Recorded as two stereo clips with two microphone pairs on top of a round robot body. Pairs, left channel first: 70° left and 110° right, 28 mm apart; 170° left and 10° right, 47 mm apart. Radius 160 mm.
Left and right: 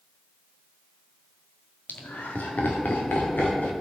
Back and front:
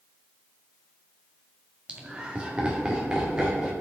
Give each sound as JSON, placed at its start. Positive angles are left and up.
{"t": 1.9, "sound": "laughter", "azimuth_deg": 60, "distance_m": 1.7}